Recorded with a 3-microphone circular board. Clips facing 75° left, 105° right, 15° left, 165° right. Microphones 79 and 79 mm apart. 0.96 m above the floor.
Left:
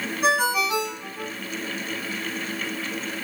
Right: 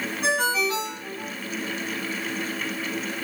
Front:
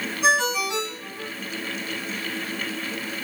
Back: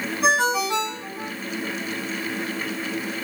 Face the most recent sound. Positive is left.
turn(degrees=155)